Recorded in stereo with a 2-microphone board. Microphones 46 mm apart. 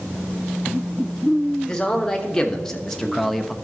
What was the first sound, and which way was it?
A man speaking, 15° left (ahead or behind).